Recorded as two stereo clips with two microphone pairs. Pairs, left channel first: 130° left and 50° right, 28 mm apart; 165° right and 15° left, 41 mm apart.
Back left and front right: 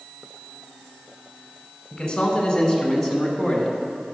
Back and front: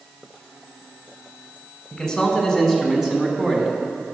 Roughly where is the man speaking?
Behind left.